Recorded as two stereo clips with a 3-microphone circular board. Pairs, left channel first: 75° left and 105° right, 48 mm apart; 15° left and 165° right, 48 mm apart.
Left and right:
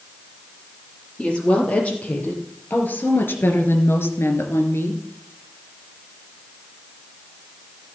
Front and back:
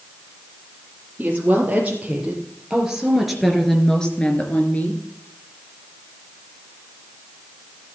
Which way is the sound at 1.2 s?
140° left.